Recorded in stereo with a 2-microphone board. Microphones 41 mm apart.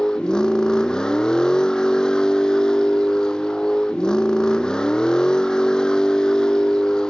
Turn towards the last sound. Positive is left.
turn(degrees=20)  # may be behind; listen again after turning